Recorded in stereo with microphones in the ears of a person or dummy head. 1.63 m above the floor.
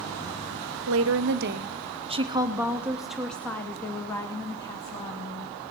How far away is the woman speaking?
About 0.9 m.